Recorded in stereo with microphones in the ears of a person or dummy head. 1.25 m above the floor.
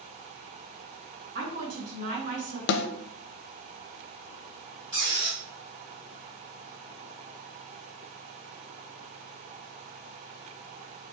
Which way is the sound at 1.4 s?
45° right (ahead or behind).